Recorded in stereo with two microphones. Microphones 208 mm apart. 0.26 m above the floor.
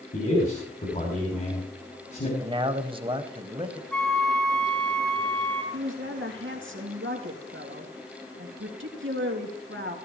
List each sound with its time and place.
0.1 s a man speaking: 40° left (ahead or behind), 3 m
2.4 s a man speaking: 25° right (ahead or behind), 1.0 m
3.9 s a flute: 5° left (ahead or behind), 1.4 m
5.7 s a woman speaking: 70° right (ahead or behind), 3 m